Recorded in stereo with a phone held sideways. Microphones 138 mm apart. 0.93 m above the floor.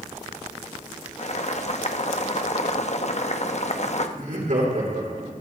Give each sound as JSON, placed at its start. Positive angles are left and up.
{"t": 1.2, "sound": "boiling", "side_deg": 55, "distance_m": 0.9}
{"t": 4.2, "sound": "laughter", "side_deg": -65, "distance_m": 3.5}